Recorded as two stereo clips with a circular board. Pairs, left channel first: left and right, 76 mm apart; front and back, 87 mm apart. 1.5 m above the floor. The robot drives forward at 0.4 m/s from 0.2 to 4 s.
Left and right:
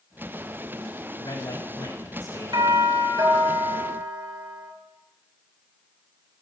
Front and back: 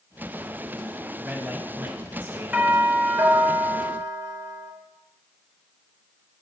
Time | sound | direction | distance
1.2 | a man speaking | 105° left | 3 m
2.5 | a doorbell | 110° right | 2.5 m